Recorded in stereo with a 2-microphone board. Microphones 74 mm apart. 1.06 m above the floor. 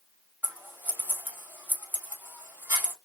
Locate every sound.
0.4 s scissors: 30° right (ahead or behind), 3 m